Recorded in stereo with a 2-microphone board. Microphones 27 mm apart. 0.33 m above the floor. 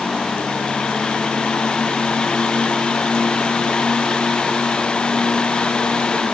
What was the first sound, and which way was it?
Only background noise.